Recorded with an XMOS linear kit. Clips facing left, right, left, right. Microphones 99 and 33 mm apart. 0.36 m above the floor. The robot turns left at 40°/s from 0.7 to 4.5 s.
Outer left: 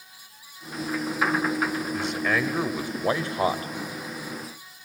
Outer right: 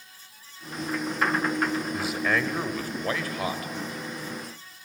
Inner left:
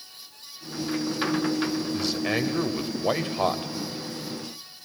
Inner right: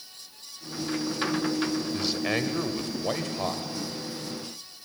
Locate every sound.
1.9 s a man speaking: 165° right, 1.3 m; by 3.7 s 120° left, 1.3 m